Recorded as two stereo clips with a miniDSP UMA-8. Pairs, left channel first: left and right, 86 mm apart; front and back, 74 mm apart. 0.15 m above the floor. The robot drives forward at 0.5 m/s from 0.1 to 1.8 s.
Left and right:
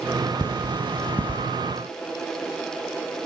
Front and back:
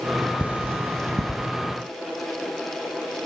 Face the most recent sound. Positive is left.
turn(degrees=160)